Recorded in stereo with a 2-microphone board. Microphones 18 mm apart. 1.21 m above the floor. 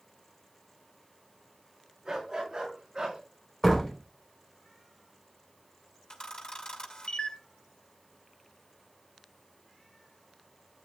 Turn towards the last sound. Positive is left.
turn(degrees=45)  # may be behind; listen again after turning